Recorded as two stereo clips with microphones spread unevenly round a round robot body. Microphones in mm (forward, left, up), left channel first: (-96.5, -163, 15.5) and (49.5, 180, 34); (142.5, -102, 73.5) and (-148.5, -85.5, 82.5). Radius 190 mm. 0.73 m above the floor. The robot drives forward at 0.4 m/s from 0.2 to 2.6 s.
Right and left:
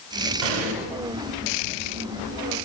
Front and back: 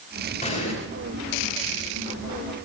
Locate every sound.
0.4 s an explosion: 70° left, 6.5 m